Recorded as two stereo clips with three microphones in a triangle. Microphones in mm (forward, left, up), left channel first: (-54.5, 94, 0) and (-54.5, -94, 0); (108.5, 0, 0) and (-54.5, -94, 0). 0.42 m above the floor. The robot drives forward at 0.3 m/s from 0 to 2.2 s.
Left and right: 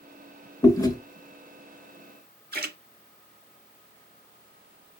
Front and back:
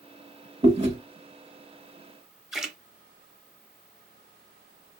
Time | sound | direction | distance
0.6 | chewing | 155° left | 0.8 m
2.5 | a splash | 60° right | 0.6 m